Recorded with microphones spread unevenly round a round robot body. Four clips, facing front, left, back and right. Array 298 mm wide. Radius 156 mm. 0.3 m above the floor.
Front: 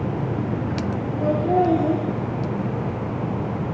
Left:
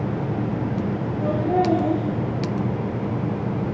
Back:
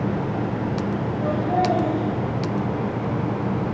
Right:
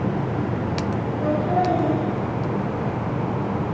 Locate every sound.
1.2 s laughter: 35° left, 5.5 m